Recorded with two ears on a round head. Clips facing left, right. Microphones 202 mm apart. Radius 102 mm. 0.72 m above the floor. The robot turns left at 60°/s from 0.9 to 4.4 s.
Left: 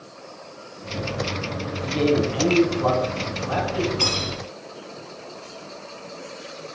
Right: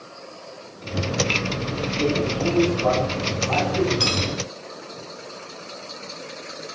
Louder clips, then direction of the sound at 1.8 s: Left 3 dB; 120° left.